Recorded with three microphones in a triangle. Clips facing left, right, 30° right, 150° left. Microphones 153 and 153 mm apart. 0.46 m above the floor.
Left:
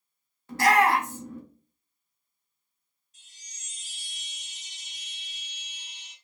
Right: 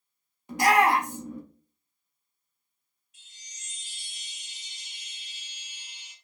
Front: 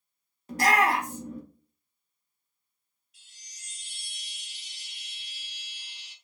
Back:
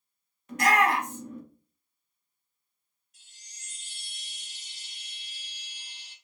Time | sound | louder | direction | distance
0.5 | a shout | even, even | 30° right | 1.1 m
3.1 | a chime | right 2 dB, even | 125° left | 0.9 m